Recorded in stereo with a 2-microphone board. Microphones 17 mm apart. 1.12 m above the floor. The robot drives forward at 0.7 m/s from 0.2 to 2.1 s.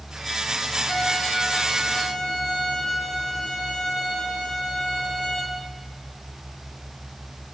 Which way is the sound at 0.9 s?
35° left (ahead or behind).